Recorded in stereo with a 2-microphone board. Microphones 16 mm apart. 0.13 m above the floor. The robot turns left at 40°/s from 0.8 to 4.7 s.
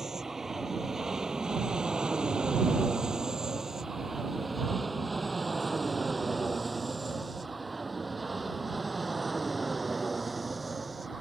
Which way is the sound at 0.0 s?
30° right (ahead or behind).